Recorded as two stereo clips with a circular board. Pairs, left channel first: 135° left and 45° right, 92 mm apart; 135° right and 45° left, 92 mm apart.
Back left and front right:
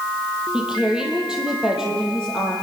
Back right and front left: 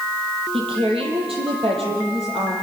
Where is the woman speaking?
35° left, 7.5 m; by 2.5 s 40° left, 8.5 m.